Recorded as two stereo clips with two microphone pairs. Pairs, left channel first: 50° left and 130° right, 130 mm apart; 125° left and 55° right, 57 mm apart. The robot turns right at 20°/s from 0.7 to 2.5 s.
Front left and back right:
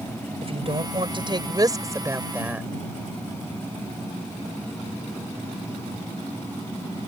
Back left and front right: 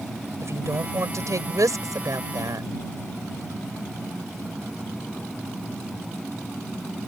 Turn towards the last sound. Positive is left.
turn(degrees=-50)